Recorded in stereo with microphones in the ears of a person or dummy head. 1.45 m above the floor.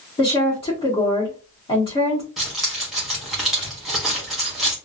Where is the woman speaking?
25° left (ahead or behind), 1.2 m.